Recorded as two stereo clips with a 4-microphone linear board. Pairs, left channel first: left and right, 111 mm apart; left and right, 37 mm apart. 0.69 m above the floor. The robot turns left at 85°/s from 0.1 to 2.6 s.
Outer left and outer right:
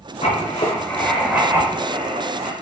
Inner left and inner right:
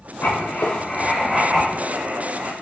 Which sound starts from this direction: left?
Writing, at 0.2 s.